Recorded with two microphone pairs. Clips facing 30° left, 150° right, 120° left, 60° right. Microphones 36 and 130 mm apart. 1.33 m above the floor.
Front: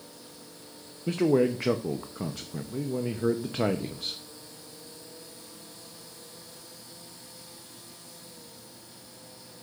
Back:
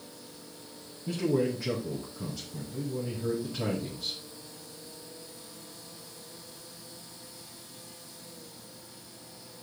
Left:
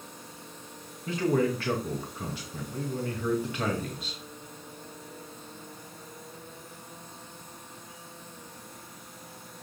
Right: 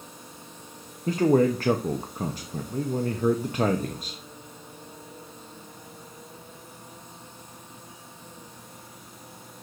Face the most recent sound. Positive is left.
turn(degrees=-10)